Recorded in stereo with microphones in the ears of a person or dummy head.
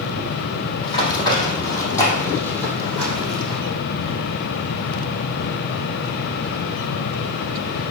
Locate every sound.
0.8 s running footsteps: 30° left (ahead or behind), 3 m; by 3.6 s centre (ahead or behind), 3 m